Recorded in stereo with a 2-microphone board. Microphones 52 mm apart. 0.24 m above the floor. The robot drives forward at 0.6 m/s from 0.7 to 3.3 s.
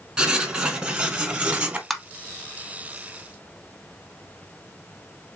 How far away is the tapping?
About 0.6 m.